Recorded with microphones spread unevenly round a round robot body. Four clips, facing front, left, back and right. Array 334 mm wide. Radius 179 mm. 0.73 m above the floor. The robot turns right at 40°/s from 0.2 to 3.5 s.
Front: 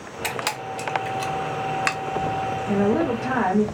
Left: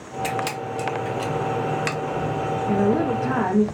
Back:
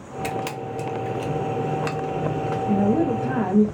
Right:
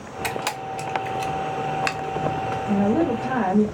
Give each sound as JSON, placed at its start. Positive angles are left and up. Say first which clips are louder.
{"t": 0.2, "sound": "a camera shutter", "louder": "left 2 dB, even", "azimuth_deg": -85, "distance_m": 0.9}
{"t": 2.7, "sound": "a woman speaking", "louder": "even, even", "azimuth_deg": 160, "distance_m": 0.7}